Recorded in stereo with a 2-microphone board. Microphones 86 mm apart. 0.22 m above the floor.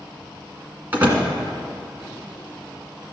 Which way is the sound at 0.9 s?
20° right (ahead or behind).